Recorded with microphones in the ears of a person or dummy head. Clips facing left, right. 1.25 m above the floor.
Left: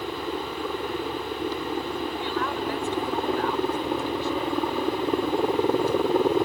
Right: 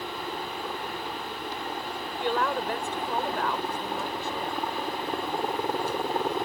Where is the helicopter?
65° left (ahead or behind).